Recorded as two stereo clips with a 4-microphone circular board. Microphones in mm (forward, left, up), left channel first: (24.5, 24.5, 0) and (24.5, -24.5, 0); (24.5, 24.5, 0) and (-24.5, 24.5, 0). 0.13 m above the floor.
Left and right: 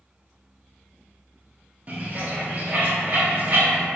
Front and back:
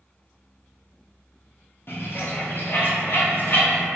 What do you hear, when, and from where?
1.9 s a bird: 35° right, 0.6 m